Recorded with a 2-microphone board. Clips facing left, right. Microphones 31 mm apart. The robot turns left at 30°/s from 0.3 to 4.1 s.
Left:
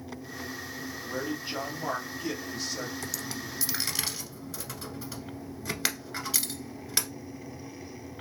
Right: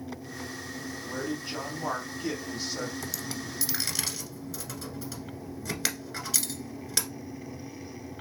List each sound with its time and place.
1.1 s a man speaking: 40° left, 2.0 m; by 2.9 s 15° right, 2.0 m
3.0 s a dropped coin: 10° right (ahead or behind), 0.9 m; by 7.1 s 10° left (ahead or behind), 0.9 m